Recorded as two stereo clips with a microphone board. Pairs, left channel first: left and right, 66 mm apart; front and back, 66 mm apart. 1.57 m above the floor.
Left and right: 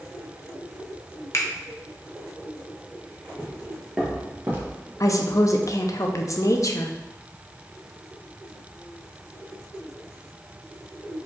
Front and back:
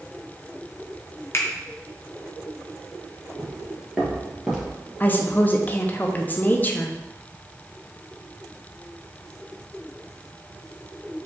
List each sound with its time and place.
1.3 s a finger snap: 45° left, 0.8 m
3.4 s footsteps: 105° left, 1.6 m; by 4.8 s 105° right, 2 m
5.0 s a woman speaking: 55° left, 0.6 m